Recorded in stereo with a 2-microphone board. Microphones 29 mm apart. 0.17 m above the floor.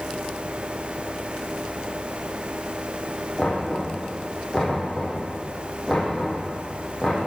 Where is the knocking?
20° left (ahead or behind), 7.5 m.